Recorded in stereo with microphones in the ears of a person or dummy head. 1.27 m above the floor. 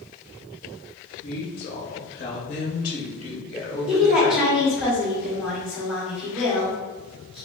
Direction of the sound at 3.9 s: Centre (ahead or behind).